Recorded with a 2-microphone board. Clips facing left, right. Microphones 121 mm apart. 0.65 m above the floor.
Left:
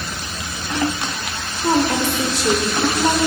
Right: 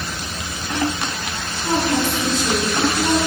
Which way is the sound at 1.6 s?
70° left (ahead or behind).